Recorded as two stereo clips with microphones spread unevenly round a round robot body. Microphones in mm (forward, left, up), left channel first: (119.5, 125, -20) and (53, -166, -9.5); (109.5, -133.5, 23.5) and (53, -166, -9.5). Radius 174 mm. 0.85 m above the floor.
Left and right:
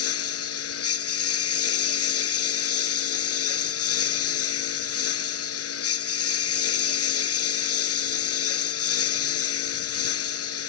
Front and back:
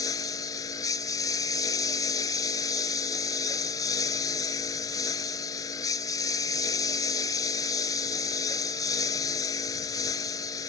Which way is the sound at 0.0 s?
35° left.